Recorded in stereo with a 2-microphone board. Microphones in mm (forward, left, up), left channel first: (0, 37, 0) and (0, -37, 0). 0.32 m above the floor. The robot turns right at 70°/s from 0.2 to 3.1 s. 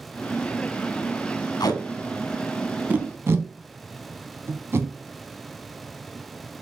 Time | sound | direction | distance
1.6 | tape being pulled | 70° left (ahead or behind) | 0.7 m